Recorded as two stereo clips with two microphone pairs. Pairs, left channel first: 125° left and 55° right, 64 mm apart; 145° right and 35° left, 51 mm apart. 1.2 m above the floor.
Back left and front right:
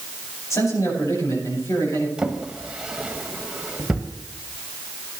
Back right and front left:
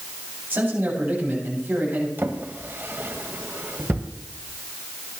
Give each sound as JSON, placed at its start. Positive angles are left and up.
{"t": 0.5, "sound": "a man speaking", "azimuth_deg": 85, "distance_m": 7.5}
{"t": 2.2, "sound": "a drawer", "azimuth_deg": 15, "distance_m": 1.4}